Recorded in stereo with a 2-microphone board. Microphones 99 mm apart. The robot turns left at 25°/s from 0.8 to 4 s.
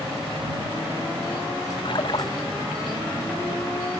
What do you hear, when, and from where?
1.9 s a splash: 60° left (ahead or behind); by 2.3 s 45° left (ahead or behind)